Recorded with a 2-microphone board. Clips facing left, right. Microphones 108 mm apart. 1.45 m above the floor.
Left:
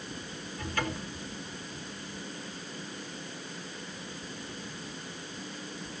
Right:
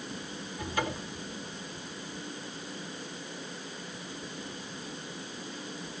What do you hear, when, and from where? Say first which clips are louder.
0.6 s a cupboard door: right 1 dB; 15° right (ahead or behind), 2.5 m